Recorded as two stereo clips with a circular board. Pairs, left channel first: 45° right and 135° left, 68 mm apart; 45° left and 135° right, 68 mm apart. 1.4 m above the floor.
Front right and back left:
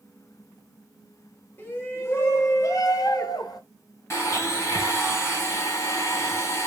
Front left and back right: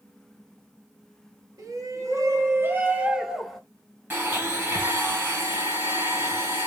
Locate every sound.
1.6 s a shout: 105° right, 1.3 m; by 3.6 s 40° right, 0.9 m
4.1 s a blender: 85° right, 2 m